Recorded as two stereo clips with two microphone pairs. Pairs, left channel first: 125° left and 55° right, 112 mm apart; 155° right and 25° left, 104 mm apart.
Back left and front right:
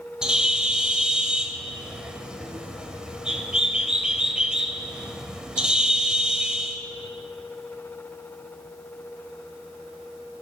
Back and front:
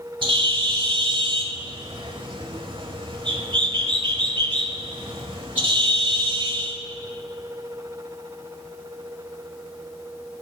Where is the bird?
25° left, 1.2 m.